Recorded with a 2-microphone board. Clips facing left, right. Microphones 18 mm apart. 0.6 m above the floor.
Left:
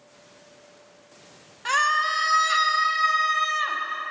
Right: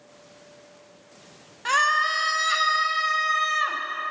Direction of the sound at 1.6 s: 5° right (ahead or behind).